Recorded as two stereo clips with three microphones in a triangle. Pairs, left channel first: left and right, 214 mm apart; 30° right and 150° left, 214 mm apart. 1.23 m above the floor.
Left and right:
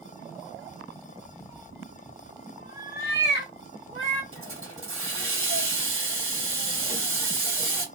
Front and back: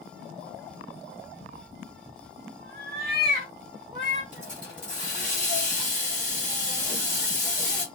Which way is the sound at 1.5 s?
165° right.